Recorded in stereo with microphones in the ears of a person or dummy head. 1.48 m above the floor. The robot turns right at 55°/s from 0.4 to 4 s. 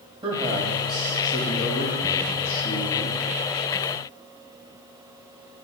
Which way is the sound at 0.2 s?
25° right.